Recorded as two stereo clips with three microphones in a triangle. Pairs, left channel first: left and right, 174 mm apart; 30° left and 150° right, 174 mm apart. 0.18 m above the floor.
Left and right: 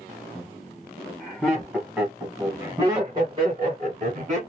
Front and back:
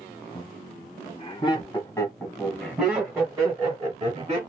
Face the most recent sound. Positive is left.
turn(degrees=-110)